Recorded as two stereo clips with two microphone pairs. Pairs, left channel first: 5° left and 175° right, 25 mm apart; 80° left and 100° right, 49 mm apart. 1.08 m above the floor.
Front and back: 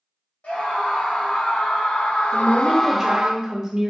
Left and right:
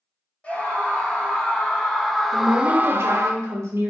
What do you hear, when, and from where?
0.4 s a scream: 15° left, 3.5 m; by 3.3 s 115° right, 0.9 m
2.3 s a woman speaking: 100° right, 1.2 m